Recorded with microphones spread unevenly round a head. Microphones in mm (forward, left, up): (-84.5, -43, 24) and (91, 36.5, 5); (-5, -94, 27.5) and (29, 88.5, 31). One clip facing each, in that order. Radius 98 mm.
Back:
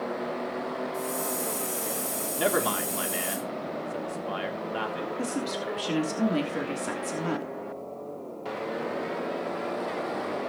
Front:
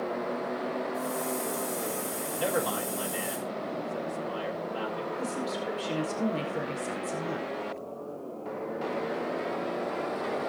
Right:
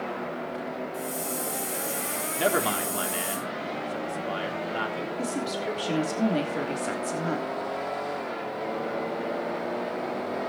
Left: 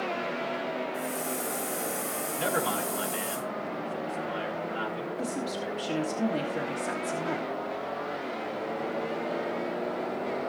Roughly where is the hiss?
Behind.